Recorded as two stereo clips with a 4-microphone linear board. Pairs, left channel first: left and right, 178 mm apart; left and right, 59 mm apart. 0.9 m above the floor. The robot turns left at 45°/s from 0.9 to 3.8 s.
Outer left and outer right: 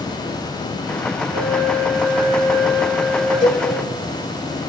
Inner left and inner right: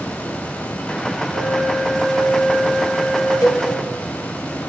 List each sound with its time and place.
1.3 s a flute: 40° right, 9.5 m; by 3.3 s 130° right, 9.5 m
3.4 s a cowbell: 80° left, 3 m; by 3.7 s 85° left, 3 m